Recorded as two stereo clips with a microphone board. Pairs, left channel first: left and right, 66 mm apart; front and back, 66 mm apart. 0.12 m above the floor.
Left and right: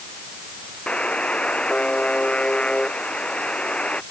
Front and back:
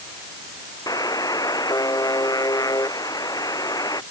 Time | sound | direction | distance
0.9 | a buzzer | 15° left | ?